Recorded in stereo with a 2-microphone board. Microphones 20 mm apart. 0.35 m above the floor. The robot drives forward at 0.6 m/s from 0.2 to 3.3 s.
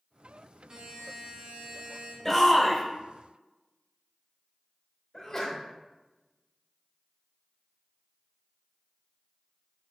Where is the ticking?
I don't hear ticking.